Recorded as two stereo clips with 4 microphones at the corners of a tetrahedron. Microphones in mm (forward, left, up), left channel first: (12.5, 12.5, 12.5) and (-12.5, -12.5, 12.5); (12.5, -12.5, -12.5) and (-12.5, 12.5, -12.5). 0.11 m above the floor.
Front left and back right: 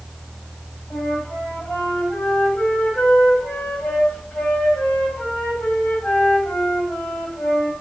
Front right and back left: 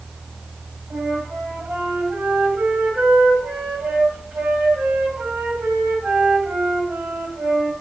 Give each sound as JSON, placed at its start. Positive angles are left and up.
{"t": 0.9, "sound": "a flute", "azimuth_deg": 85, "distance_m": 7.0}